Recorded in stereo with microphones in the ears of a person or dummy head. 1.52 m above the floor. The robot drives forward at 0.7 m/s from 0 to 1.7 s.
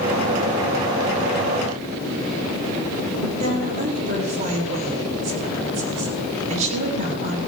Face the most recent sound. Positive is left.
turn(degrees=-45)  # may be behind; listen again after turning